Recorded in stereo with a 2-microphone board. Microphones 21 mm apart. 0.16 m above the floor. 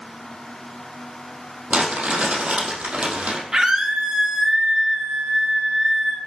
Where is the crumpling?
75° right (ahead or behind), 5 m.